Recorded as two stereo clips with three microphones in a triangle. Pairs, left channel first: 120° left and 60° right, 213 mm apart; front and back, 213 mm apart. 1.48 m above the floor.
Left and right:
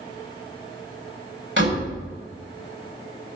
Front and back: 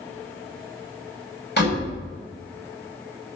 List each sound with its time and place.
1.6 s a door slam: 35° right, 6.5 m